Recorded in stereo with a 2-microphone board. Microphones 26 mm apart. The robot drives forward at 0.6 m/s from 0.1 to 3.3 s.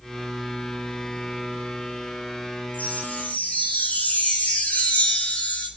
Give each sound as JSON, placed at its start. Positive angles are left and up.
{"t": 2.7, "sound": "a chime", "side_deg": 70, "distance_m": 5.5}